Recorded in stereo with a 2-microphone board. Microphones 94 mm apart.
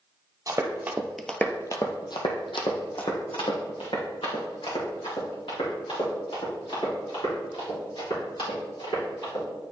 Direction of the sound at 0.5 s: 40° right (ahead or behind).